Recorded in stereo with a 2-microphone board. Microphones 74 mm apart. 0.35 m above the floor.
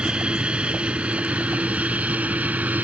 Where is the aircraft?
10° right (ahead or behind); by 2.8 s 20° right (ahead or behind).